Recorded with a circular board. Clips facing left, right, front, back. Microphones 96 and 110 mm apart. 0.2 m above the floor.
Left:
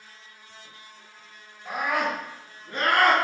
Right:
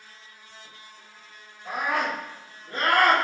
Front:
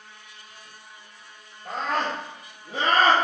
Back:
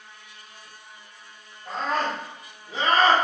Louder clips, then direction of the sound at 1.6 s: Even, even; 5° left.